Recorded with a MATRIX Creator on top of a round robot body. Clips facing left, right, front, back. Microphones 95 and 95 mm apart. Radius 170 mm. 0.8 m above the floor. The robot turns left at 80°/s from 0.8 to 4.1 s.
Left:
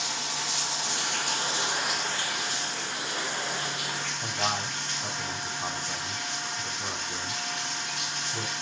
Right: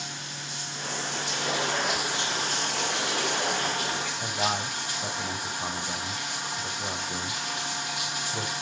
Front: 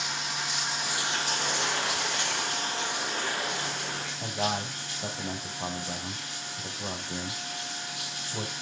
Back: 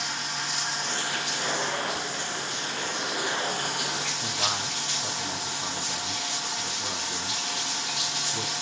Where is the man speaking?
25° right, 6.5 m.